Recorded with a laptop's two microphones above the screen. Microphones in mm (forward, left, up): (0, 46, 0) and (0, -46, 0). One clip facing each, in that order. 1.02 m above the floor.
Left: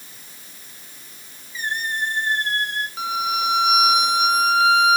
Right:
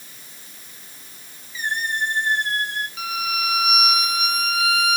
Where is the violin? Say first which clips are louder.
Left 6 dB; 30° left (ahead or behind), 0.8 m.